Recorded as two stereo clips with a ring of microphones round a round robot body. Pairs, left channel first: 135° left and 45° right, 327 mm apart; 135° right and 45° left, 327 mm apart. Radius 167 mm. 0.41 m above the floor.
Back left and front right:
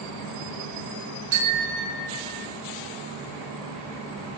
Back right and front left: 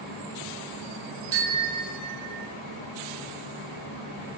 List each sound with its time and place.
1.3 s a bicycle bell: 5° right, 3.5 m; by 2.5 s 20° left, 2.5 m